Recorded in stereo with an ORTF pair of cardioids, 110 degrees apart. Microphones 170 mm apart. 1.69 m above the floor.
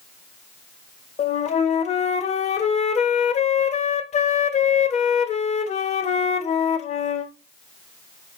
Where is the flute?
40° left, 0.7 m.